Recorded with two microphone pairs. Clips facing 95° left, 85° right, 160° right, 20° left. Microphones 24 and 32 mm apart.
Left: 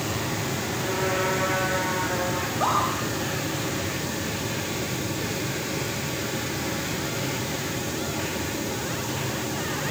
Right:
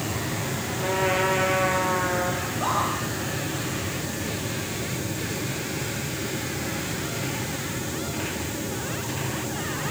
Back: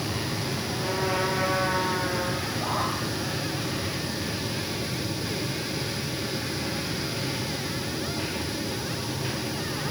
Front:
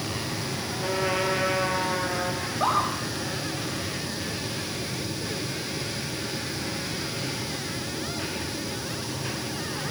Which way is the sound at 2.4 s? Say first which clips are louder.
Left 2 dB, front 3 dB; 35° left.